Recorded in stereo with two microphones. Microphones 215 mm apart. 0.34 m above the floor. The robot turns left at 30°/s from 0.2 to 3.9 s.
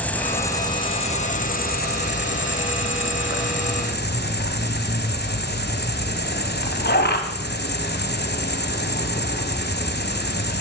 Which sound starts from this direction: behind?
An insect, at 0.0 s.